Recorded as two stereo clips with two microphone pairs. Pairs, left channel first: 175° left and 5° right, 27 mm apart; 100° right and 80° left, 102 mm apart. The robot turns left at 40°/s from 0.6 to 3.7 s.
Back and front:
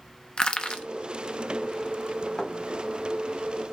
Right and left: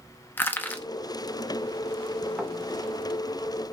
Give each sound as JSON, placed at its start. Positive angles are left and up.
{"t": 0.4, "sound": "crushing", "azimuth_deg": -160, "distance_m": 0.7}
{"t": 2.4, "sound": "a thud", "azimuth_deg": 150, "distance_m": 1.0}